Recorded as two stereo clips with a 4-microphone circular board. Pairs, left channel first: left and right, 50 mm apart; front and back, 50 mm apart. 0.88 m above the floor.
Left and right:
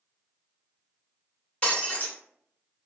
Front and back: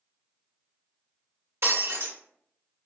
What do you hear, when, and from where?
1.6 s breaking glass: 155° left, 1.3 m